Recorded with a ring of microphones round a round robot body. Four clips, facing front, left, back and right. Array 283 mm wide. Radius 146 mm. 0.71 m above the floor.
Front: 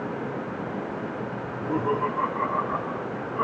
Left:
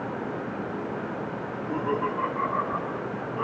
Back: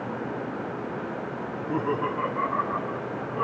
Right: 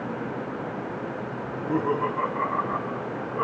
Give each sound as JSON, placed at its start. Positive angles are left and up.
{"t": 1.4, "sound": "laughter", "azimuth_deg": -40, "distance_m": 7.0}